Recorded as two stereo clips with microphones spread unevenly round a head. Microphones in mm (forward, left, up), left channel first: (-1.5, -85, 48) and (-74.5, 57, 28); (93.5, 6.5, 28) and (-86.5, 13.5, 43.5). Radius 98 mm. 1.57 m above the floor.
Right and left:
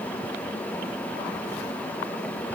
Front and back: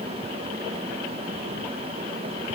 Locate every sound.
Only background noise.